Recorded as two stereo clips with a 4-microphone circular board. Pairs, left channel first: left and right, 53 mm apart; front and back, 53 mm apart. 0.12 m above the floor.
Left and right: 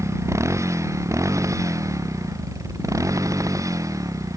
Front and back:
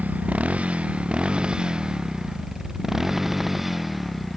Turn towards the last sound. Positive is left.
turn(degrees=-90)